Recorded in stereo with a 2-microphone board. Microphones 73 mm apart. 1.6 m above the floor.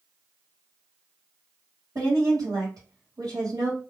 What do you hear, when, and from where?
1.9 s a woman speaking: 60° right (ahead or behind), 1.2 m